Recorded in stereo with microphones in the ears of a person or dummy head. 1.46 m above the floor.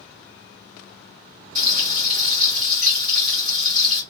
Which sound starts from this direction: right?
Frying, at 1.6 s.